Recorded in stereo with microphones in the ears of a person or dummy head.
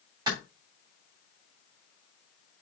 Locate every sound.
0.3 s a clap: 20° right (ahead or behind), 3.5 m